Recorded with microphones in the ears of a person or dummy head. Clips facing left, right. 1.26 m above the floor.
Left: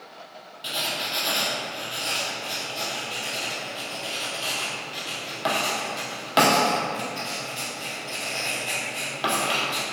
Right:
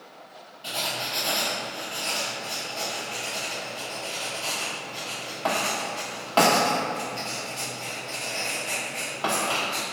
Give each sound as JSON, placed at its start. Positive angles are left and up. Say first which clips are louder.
{"t": 0.6, "sound": "writing", "louder": "even", "side_deg": 20, "distance_m": 1.1}